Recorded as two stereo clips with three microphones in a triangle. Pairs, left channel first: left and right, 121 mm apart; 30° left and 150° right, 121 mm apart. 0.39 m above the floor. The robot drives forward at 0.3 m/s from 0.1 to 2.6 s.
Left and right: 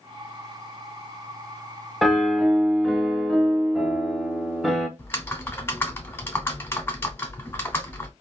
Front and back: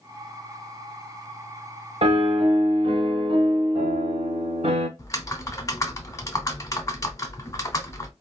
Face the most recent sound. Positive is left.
turn(degrees=45)